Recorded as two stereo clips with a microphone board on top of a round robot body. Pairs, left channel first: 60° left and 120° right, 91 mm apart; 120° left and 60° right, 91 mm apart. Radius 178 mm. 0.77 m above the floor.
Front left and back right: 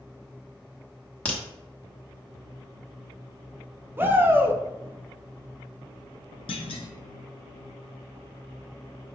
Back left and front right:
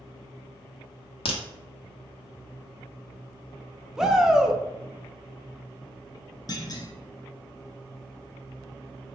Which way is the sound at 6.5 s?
75° left.